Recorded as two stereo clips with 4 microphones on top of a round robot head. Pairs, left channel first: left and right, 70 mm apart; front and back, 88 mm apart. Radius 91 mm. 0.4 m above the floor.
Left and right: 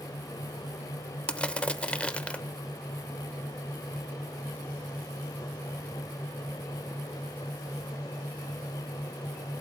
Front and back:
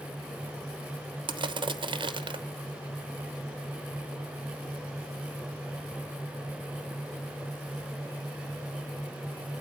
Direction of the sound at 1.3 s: 165° left.